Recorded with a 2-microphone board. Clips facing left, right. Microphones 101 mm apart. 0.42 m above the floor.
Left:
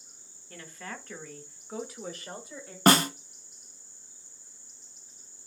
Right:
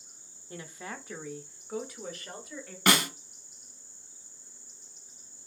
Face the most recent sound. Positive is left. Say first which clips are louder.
# left 5 dB
turn(degrees=40)  # may be behind; listen again after turning